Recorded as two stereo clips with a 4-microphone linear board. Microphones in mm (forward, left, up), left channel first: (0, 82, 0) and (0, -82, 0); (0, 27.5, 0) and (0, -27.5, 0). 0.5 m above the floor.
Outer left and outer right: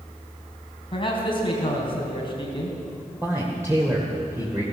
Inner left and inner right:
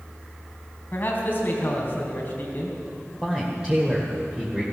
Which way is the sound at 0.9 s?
35° left (ahead or behind).